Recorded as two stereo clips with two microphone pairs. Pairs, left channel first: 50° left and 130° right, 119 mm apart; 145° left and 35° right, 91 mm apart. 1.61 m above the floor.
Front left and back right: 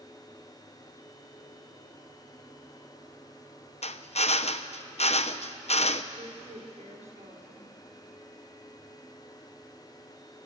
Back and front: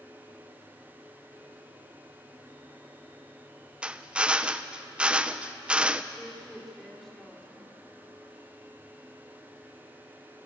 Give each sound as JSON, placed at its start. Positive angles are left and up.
{"t": 3.8, "sound": "a drill", "azimuth_deg": 45, "distance_m": 0.8}
{"t": 6.1, "sound": "a woman speaking", "azimuth_deg": -130, "distance_m": 5.5}